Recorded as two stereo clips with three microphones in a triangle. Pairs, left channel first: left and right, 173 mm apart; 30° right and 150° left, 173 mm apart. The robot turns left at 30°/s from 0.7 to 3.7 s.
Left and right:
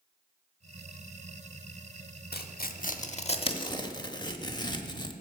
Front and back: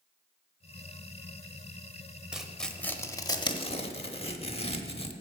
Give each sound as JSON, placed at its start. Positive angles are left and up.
{"t": 2.3, "sound": "tearing paper", "azimuth_deg": 65, "distance_m": 0.8}